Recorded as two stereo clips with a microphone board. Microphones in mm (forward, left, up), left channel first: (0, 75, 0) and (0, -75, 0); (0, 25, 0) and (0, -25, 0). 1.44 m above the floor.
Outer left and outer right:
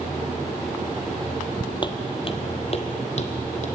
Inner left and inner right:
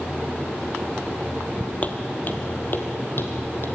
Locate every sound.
1.8 s footsteps: 35° left (ahead or behind), 1.7 m; by 3.7 s 55° left (ahead or behind), 2.5 m